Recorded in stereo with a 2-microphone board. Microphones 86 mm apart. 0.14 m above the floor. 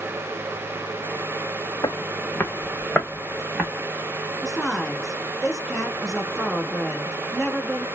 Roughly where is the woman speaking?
Centre.